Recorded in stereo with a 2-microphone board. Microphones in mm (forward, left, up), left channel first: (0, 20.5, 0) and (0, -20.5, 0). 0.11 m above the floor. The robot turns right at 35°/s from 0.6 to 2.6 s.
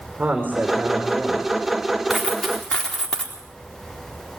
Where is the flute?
I don't hear a flute.